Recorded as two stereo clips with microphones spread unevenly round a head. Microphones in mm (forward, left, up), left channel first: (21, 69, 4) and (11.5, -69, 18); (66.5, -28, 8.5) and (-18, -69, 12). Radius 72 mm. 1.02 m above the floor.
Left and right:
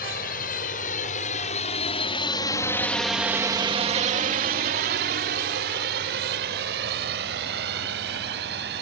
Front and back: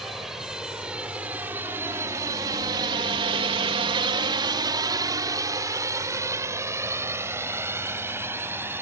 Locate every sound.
0.0 s a drone: 120° left; by 8.8 s 90° right